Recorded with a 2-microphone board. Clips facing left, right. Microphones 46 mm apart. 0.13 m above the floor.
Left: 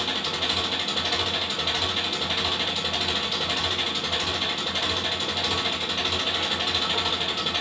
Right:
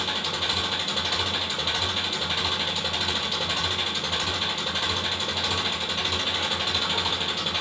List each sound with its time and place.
0.0 s an engine running: 10° left (ahead or behind), 1.0 m